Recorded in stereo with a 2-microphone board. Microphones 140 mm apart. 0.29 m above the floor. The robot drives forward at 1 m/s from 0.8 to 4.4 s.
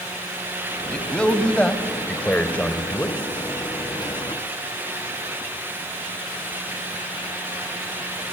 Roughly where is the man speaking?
Centre.